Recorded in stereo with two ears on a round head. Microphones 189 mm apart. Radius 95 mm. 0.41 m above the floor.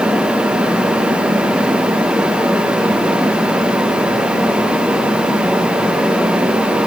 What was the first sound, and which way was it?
Only background noise.